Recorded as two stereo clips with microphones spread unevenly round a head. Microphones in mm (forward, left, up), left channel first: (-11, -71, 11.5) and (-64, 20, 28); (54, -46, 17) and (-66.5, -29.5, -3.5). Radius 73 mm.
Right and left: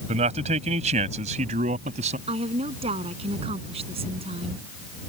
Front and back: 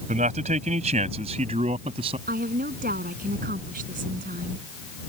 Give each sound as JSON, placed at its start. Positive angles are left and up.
{"t": 0.1, "sound": "a man speaking", "azimuth_deg": 125}
{"t": 2.3, "sound": "a woman speaking", "azimuth_deg": 140}